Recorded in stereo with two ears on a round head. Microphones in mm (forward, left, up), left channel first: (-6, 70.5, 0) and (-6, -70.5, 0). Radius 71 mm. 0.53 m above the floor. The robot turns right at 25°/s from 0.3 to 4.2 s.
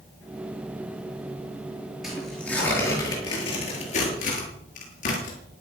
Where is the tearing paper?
Centre (ahead or behind), 8.5 m; by 5.4 s 50° left (ahead or behind), 8.5 m.